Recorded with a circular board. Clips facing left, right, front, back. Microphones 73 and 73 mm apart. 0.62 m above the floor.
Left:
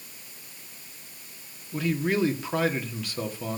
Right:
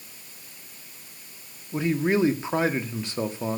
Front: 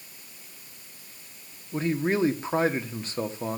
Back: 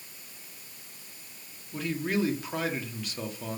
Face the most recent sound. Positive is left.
turn(degrees=-40)